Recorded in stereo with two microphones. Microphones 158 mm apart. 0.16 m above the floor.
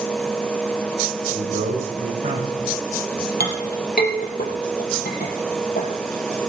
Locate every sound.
1.3 s a man speaking: 75° right (ahead or behind), 7.5 m
3.4 s a clink: 75° left (ahead or behind), 3.5 m